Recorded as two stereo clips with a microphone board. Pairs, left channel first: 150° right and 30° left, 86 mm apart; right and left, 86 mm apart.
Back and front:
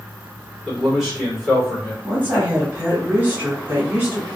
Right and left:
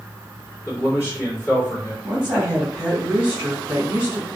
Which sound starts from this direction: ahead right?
A man speaking, at 0.7 s.